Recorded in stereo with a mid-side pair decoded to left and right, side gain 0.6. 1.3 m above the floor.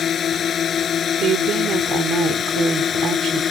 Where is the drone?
40° left; by 3.5 s 35° left.